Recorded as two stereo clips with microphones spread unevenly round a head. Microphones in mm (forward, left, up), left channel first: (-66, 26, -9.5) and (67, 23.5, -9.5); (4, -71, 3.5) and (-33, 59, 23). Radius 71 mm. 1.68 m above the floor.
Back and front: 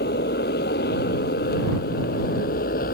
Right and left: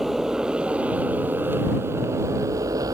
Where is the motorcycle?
165° right; by 2.9 s 170° left.